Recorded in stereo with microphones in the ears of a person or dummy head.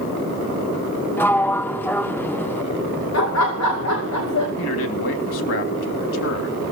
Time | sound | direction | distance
1.2 | a sliding door | 10° left (ahead or behind) | 0.5 m
3.1 | laughter | 90° left | 2.5 m
4.6 | a man speaking | 65° left (ahead or behind) | 3 m